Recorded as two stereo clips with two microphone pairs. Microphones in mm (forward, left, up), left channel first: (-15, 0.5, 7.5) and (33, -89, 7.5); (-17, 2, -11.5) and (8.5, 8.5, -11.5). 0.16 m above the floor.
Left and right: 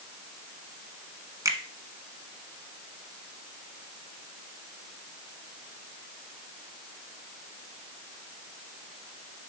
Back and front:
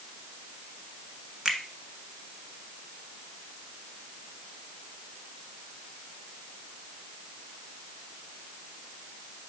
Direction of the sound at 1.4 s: 40° right.